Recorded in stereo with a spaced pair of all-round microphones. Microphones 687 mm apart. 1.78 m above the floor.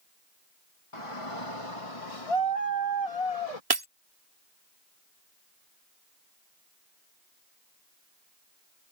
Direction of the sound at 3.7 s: 35° right (ahead or behind).